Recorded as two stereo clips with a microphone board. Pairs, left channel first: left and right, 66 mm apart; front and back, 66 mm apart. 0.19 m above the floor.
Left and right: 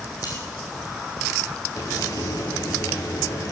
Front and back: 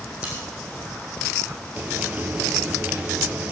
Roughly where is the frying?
Behind left.